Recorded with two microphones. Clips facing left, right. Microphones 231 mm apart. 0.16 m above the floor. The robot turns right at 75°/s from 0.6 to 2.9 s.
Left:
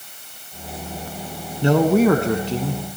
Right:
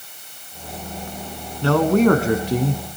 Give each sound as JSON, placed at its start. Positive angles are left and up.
{"t": 1.6, "sound": "a man speaking", "azimuth_deg": 140, "distance_m": 1.2}